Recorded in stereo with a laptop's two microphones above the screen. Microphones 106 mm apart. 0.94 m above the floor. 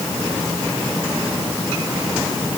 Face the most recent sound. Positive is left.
No sound to turn to.